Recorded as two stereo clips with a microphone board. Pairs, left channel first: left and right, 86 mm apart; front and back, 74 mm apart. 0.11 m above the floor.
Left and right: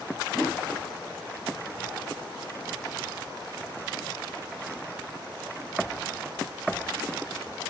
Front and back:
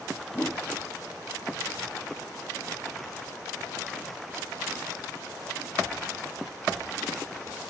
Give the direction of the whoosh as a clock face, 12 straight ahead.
12 o'clock.